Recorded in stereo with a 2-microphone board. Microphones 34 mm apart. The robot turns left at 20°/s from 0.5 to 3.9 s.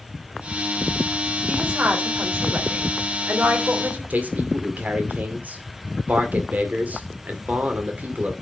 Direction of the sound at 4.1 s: 55° right (ahead or behind).